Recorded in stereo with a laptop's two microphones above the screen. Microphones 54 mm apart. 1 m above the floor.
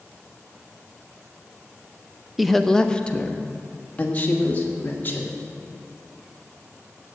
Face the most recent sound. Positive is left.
turn(degrees=35)  # may be behind; listen again after turning